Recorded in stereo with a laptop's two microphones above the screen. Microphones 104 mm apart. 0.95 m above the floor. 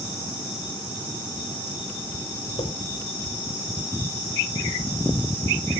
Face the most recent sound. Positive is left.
turn(degrees=75)  # may be behind; listen again after turning